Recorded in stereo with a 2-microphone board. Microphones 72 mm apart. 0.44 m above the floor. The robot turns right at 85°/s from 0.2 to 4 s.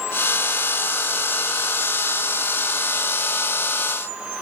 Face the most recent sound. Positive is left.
No sound to turn to.